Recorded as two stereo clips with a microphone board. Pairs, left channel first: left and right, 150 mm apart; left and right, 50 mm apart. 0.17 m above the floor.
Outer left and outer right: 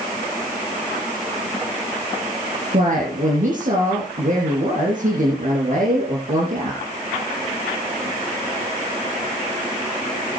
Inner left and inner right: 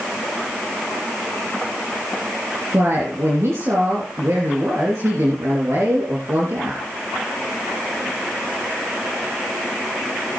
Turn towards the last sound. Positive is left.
turn(degrees=-55)  # may be behind; listen again after turning